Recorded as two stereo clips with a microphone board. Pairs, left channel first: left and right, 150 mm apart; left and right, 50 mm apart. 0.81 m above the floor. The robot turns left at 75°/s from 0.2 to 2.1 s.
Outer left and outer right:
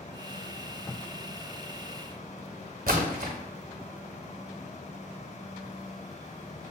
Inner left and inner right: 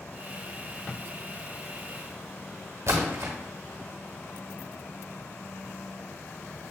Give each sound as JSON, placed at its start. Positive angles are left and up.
{"t": 2.9, "sound": "a splash", "side_deg": -60, "distance_m": 0.9}